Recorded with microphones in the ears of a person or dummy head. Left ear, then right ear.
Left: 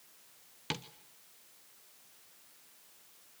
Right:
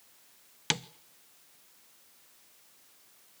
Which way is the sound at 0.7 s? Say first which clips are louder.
Right 8 dB; 35° right (ahead or behind).